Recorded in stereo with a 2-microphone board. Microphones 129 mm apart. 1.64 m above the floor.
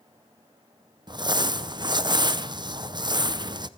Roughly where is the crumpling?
Right.